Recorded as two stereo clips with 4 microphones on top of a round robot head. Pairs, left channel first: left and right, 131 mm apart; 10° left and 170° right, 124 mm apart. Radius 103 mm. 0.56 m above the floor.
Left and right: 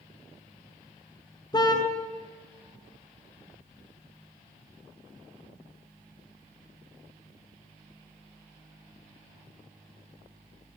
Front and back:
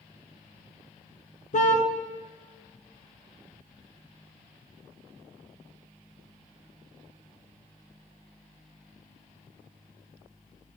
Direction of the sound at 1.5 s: 30° left.